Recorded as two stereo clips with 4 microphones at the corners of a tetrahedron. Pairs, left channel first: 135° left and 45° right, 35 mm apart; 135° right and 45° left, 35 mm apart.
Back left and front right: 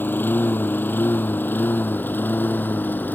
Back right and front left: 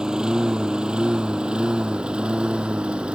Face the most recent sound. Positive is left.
turn(degrees=105)